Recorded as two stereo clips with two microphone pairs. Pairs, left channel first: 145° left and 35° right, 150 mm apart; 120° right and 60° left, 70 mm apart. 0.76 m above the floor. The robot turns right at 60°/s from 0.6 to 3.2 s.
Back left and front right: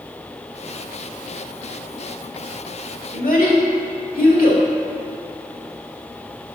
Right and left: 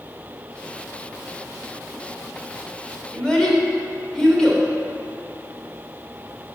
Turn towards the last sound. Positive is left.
turn(degrees=155)